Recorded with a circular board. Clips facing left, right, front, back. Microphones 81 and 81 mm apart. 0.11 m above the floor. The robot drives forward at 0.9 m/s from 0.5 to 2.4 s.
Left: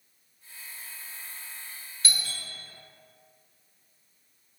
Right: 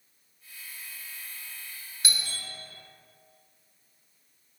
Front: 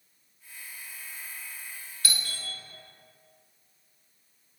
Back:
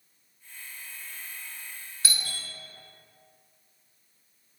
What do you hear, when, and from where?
2.0 s a doorbell: 150° right, 1.8 m; by 2.4 s 155° right, 2.0 m